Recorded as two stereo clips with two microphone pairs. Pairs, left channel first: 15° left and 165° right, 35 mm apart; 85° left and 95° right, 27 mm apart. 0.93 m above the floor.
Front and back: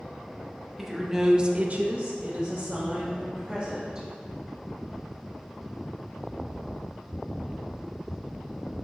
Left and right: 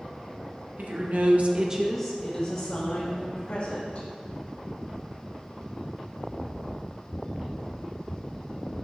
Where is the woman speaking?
80° right, 1.2 m; by 4.1 s 120° left, 2.5 m.